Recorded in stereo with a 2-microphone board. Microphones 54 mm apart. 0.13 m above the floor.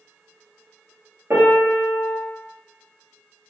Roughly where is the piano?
Right.